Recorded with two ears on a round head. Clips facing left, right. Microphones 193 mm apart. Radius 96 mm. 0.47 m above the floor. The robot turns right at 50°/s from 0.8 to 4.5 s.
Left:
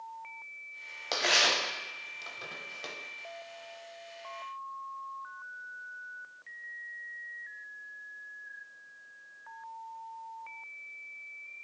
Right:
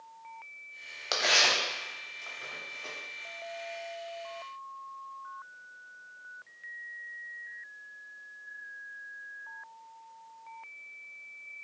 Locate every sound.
1.1 s tearing paper: 5° right (ahead or behind), 0.6 m; by 2.9 s 85° left, 0.6 m